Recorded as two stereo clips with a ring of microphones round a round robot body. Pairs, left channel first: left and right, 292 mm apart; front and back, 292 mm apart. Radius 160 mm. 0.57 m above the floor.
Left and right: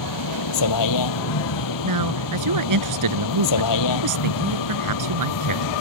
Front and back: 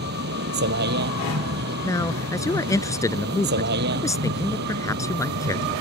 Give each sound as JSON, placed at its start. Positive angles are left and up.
{"t": 0.0, "sound": "a vehicle", "azimuth_deg": 120}
{"t": 1.8, "sound": "a man speaking", "azimuth_deg": -80}